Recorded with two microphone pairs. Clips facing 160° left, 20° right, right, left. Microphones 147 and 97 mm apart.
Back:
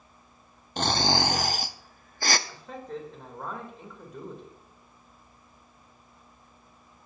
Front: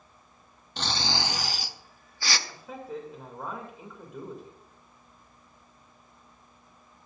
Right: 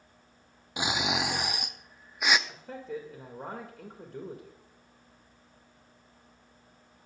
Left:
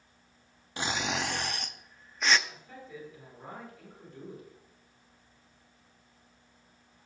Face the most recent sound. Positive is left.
turn(degrees=-105)